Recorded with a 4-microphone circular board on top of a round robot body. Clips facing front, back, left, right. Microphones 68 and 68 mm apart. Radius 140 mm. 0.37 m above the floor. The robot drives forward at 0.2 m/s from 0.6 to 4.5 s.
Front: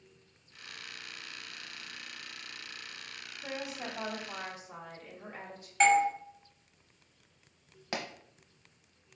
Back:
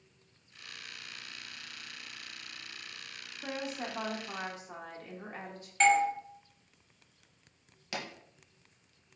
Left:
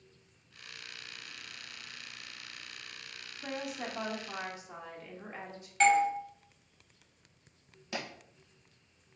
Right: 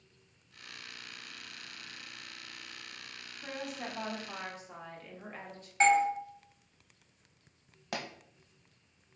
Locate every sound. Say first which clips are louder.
3.4 s a woman speaking: back 2 dB, left 2 dB; 165° left, 1.2 m; by 5.7 s 170° left, 1.3 m
5.8 s a doorbell: front 1 dB, even; 70° right, 1.3 m
7.9 s a pop: front 2 dB, even; 60° right, 0.5 m